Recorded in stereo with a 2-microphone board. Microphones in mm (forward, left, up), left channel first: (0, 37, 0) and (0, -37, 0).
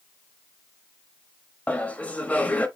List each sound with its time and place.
1.7 s laughter: 20° left (ahead or behind), 1.0 m